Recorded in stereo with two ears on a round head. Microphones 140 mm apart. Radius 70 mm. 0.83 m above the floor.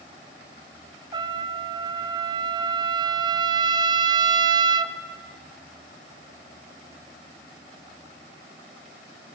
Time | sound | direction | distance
1.1 | a trumpet | 30° right (ahead or behind) | 0.8 m